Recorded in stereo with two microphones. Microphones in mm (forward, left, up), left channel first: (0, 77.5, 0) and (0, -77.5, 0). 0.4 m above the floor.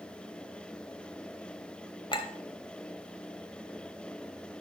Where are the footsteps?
I don't hear footsteps.